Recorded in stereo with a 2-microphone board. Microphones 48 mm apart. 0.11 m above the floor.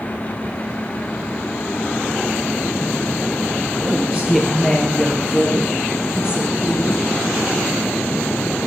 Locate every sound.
3.8 s a woman speaking: 15° right (ahead or behind), 1.9 m; by 7.0 s 65° left (ahead or behind), 3.5 m